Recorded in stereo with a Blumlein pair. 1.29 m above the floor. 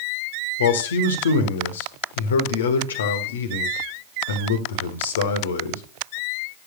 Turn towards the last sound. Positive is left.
turn(degrees=65)